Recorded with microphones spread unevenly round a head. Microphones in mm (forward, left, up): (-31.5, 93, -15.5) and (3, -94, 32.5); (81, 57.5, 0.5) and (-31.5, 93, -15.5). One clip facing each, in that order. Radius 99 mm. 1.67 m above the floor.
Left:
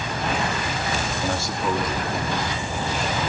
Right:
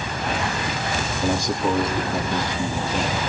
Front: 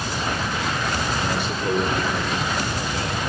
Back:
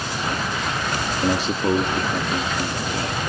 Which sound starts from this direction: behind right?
A man speaking, at 1.2 s.